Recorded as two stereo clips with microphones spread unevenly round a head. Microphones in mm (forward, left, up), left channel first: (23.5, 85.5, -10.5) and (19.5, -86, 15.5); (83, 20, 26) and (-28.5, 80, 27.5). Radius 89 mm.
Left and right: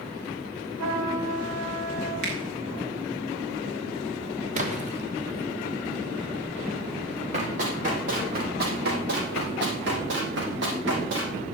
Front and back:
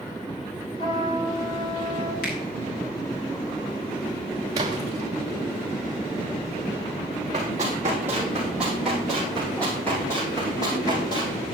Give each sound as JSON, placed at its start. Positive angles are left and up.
{"t": 0.8, "sound": "a trumpet", "azimuth_deg": -90, "distance_m": 4.0}
{"t": 2.2, "sound": "a finger snap", "azimuth_deg": -50, "distance_m": 4.0}
{"t": 4.5, "sound": "a splash", "azimuth_deg": -145, "distance_m": 1.6}
{"t": 7.3, "sound": "running footsteps", "azimuth_deg": -140, "distance_m": 3.0}